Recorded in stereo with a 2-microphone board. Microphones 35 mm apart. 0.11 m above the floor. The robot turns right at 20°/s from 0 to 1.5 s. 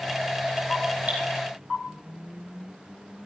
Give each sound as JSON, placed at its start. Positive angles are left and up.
{"t": 1.1, "sound": "dripping", "side_deg": -45, "distance_m": 4.5}